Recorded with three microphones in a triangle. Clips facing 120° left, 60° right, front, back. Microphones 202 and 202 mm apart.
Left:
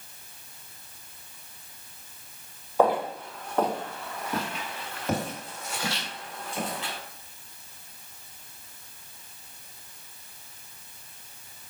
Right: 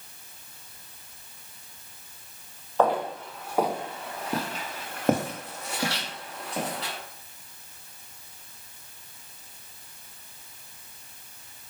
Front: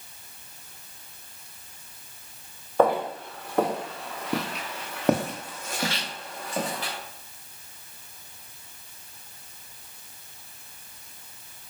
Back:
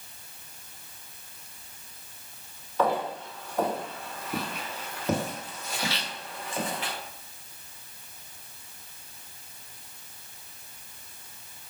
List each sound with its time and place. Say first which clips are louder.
2.8 s footsteps: left 1 dB, front 5 dB; 40° left, 1.3 m; by 6.9 s 55° right, 2.0 m